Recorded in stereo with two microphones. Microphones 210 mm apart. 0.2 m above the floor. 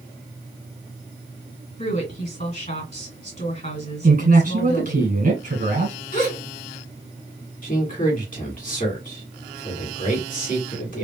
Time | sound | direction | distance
1.8 | a woman speaking | 40° left (ahead or behind) | 2.5 m
4.0 | a man speaking | 45° right (ahead or behind) | 1.9 m
6.1 | a gasp | 45° left (ahead or behind) | 2 m
7.6 | a man speaking | 45° left (ahead or behind) | 1.8 m